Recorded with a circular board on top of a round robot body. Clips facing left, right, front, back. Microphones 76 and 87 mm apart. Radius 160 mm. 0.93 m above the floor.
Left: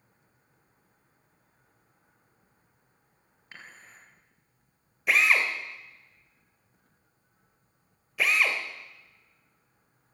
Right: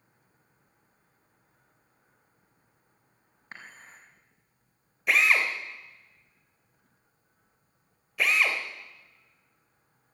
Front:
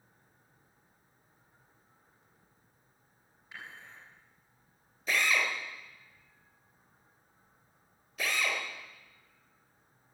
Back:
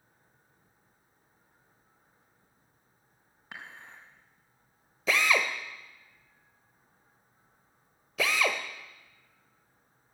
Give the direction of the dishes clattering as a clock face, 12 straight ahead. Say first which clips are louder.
Right 2 dB, back 2 dB; 5 o'clock.